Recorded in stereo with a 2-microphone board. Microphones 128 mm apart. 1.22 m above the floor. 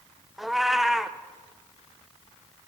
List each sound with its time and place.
0.4 s a cat meowing: centre (ahead or behind), 0.5 m